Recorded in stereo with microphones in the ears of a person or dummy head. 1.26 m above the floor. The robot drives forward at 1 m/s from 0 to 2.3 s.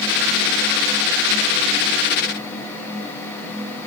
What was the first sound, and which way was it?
Only background noise.